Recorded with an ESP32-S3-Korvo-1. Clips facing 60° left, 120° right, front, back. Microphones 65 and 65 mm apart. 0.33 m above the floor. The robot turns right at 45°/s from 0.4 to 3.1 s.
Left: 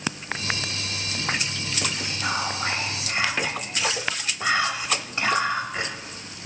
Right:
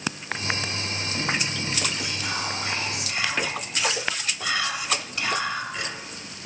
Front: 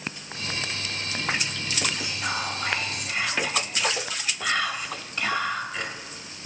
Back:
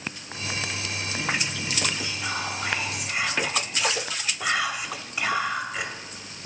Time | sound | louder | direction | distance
2.0 | whispering | left 3 dB, front 1 dB | 50° left | 1.3 m